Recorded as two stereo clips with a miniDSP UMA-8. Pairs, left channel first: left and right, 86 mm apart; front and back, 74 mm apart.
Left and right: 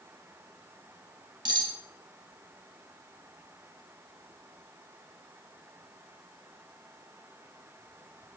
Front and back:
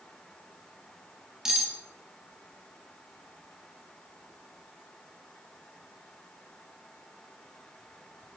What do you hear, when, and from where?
1.4 s cutlery clinking: 100° right, 1.8 m